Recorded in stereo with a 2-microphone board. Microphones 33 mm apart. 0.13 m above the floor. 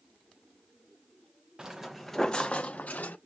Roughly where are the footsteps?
Right.